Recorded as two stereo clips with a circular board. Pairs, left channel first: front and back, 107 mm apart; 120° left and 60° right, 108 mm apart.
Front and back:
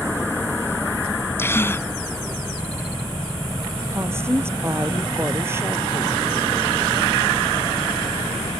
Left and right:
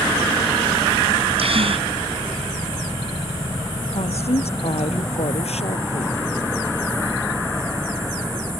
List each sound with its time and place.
1.4 s a gasp: 65° right
3.9 s a woman speaking: 115° left